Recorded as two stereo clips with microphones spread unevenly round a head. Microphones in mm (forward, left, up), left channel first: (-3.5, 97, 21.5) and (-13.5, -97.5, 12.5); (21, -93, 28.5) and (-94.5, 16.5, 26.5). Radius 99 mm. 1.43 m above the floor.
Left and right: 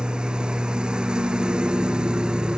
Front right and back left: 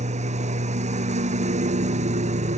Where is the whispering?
I don't hear whispering.